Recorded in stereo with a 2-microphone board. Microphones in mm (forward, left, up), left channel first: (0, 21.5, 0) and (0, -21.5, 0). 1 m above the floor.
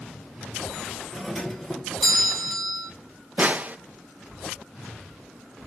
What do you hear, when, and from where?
1.1 s a doorbell: 5° left (ahead or behind), 1.2 m
3.4 s a snare drum: 35° right (ahead or behind), 0.5 m